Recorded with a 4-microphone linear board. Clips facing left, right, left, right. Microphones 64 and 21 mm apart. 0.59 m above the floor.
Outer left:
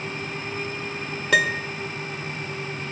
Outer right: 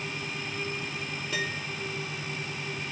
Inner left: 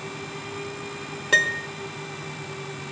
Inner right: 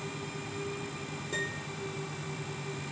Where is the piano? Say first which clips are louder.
Outer left 14 dB, inner left 16 dB; 85° left, 0.5 m.